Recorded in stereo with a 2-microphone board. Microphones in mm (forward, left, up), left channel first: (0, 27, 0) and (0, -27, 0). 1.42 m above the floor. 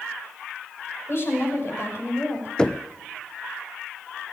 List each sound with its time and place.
1.1 s a woman speaking: 50° left (ahead or behind), 6 m
2.6 s knocking: 15° left (ahead or behind), 0.7 m